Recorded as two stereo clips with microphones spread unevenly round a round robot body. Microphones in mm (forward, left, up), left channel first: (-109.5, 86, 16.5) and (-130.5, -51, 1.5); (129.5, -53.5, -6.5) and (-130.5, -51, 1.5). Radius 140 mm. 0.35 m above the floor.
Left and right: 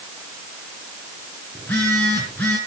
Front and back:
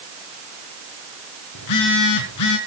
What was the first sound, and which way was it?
A phone buzzing, 5° right.